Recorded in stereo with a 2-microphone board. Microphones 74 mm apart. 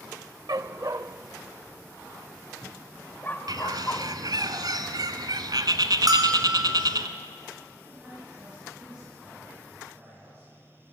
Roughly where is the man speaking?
Centre.